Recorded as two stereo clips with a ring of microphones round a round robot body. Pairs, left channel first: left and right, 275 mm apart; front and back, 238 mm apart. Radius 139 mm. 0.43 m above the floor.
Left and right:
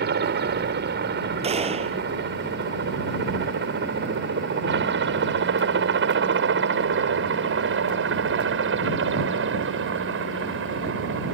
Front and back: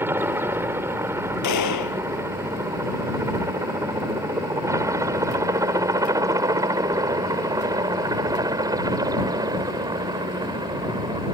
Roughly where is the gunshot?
Ahead.